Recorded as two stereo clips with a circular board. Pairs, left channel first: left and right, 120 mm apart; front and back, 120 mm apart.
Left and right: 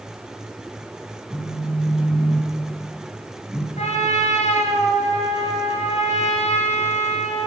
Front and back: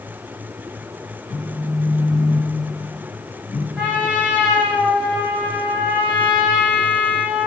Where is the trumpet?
95° left, 2 m.